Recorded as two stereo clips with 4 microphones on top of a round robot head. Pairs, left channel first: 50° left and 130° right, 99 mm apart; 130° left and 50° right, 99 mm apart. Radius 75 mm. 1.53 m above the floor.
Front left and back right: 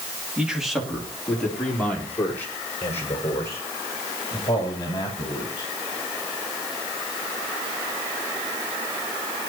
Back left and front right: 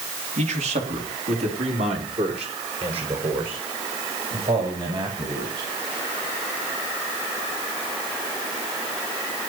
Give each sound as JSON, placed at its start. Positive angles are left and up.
{"t": 0.4, "sound": "a man speaking", "azimuth_deg": -45, "distance_m": 3.0}